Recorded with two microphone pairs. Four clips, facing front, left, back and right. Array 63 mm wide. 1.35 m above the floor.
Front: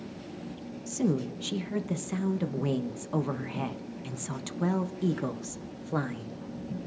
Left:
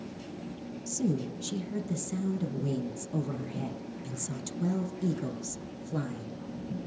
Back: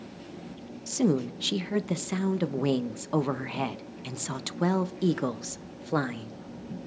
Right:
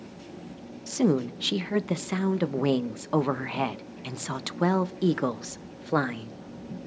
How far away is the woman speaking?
About 0.5 m.